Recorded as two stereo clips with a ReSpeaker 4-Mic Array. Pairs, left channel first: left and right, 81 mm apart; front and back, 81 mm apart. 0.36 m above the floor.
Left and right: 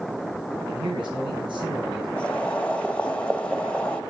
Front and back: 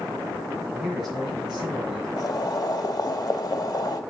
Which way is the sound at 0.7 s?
95° right.